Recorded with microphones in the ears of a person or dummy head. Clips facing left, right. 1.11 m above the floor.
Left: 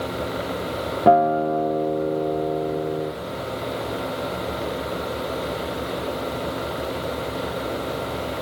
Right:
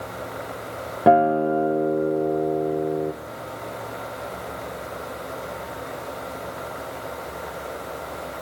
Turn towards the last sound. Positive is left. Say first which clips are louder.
# even
turn(degrees=-5)  # may be behind; listen again after turning